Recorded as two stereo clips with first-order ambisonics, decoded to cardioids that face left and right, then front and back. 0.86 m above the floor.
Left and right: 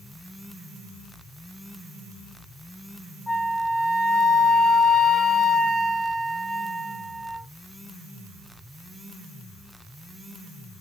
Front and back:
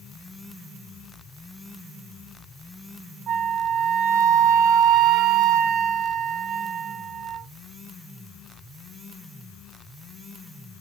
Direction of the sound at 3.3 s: 175° right.